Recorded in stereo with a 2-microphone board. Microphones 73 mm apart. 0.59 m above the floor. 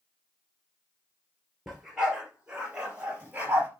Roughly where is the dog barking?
Centre.